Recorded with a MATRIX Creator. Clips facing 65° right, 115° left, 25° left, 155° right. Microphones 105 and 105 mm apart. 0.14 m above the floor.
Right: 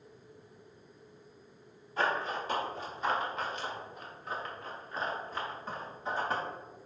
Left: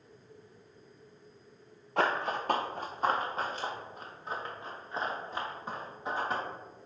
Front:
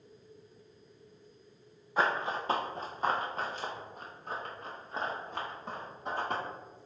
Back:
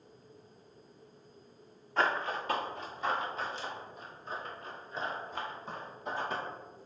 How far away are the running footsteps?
About 0.8 m.